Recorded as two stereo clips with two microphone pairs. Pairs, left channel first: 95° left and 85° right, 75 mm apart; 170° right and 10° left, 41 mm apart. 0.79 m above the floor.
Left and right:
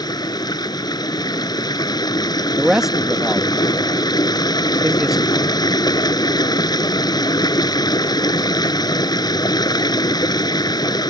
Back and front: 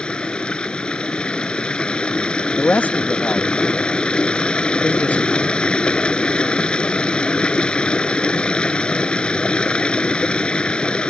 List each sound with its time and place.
0.0 s running water: 125° left
2.6 s a man speaking: 165° right